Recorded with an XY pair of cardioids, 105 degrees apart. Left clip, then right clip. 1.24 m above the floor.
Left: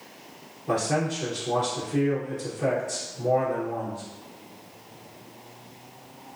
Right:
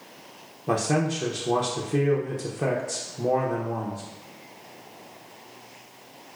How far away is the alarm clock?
I don't hear an alarm clock.